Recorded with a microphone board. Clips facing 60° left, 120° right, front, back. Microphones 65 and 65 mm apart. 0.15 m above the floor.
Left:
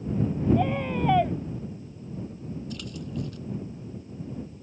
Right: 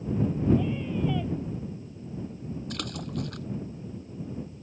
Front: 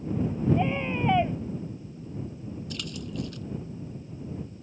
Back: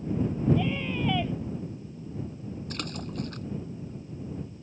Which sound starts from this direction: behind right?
A splash, at 2.7 s.